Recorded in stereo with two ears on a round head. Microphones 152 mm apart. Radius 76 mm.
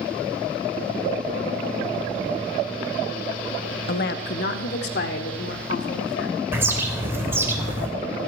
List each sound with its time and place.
3.9 s a woman speaking: 60° left (ahead or behind), 1.2 m; by 6.4 s 70° left (ahead or behind), 4.5 m
6.5 s a bird: 15° right (ahead or behind), 3 m